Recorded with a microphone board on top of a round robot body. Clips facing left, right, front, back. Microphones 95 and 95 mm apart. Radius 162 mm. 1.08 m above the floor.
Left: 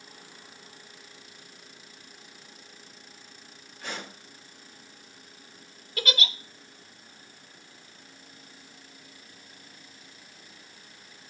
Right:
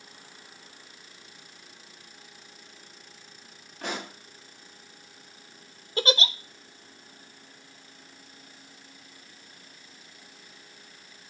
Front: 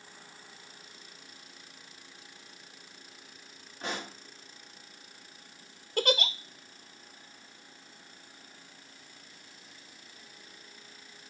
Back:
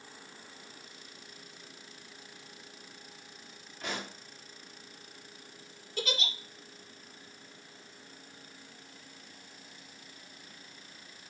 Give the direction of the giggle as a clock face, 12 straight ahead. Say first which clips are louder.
Right 5 dB, front 7 dB; 1 o'clock.